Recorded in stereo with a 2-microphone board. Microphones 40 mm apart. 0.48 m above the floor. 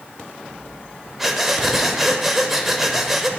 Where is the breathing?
5° right (ahead or behind), 0.6 m.